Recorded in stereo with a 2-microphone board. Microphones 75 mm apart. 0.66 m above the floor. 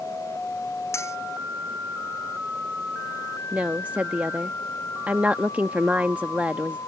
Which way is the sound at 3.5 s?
20° right (ahead or behind).